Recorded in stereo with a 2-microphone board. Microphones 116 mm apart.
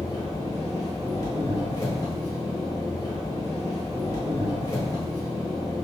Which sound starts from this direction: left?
An engine running, at 0.0 s.